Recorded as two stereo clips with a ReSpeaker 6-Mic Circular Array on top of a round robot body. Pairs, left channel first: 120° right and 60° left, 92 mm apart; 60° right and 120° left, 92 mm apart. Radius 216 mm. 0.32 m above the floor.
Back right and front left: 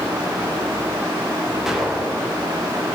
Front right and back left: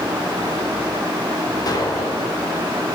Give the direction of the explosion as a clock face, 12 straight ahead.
1 o'clock.